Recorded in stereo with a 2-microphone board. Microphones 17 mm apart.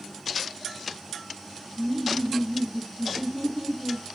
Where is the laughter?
10° right (ahead or behind), 1.7 m.